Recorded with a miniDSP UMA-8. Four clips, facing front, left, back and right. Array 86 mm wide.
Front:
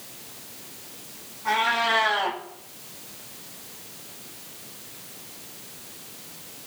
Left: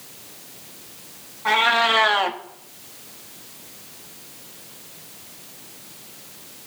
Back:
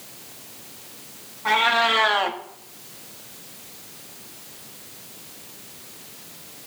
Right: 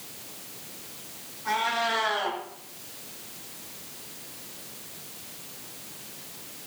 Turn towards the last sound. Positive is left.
turn(degrees=125)